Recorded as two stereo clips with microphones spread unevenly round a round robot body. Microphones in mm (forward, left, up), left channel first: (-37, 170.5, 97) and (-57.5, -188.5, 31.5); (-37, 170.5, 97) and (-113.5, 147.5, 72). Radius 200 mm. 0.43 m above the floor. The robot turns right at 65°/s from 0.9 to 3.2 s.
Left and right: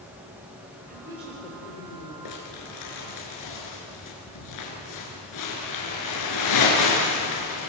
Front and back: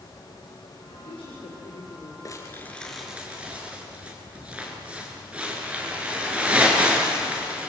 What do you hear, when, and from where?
0.9 s a woman speaking: 25° right, 8 m; by 2.1 s 55° left, 8 m
2.2 s crumpling: 60° left, 6 m; by 7.7 s 125° left, 6 m